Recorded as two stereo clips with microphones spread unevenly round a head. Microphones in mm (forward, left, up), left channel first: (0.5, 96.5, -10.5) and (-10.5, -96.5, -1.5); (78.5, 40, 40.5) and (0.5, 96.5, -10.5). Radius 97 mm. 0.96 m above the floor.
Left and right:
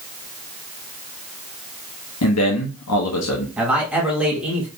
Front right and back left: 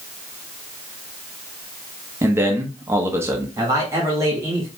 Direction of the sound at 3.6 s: Straight behind.